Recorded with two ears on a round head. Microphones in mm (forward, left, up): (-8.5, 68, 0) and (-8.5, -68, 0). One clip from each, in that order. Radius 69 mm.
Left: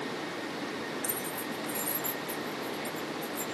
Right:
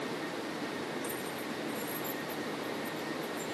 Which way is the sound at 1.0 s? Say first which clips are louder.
Left 2 dB; 55° left (ahead or behind).